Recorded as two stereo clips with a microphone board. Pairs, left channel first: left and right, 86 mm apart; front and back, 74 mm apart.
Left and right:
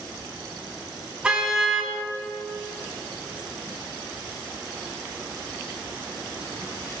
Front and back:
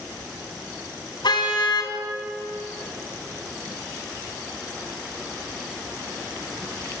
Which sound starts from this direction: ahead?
A car horn, at 1.2 s.